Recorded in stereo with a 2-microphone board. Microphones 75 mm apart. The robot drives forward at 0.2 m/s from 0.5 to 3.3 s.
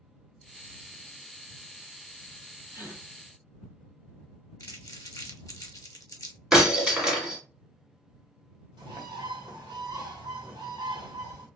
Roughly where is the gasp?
Right.